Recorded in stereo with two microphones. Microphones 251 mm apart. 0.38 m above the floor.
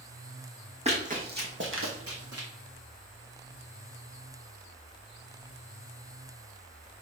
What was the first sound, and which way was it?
Running footsteps, 25° right (ahead or behind).